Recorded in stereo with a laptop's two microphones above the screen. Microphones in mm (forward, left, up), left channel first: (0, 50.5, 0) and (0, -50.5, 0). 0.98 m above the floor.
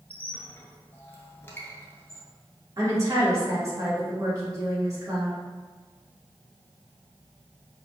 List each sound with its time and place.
0.1 s a squeak: 25° left (ahead or behind), 1.0 m
2.8 s a woman speaking: 35° right (ahead or behind), 1.9 m